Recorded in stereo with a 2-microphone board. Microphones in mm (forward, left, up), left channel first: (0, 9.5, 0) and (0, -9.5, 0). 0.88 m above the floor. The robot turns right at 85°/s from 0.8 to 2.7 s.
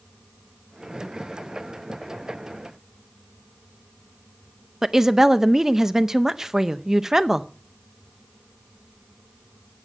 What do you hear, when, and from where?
4.8 s a woman speaking: 20° right (ahead or behind), 0.6 m